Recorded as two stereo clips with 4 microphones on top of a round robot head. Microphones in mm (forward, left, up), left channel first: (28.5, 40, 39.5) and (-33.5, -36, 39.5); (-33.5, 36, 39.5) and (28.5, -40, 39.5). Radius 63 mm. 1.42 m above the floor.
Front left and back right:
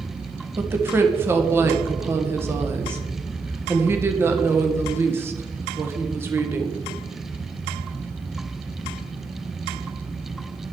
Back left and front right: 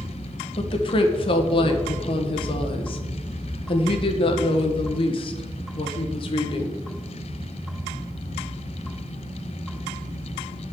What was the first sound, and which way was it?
A woman speaking, 165° left.